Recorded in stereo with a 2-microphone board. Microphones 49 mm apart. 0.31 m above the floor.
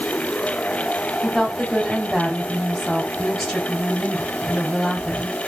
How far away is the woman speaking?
About 1.5 m.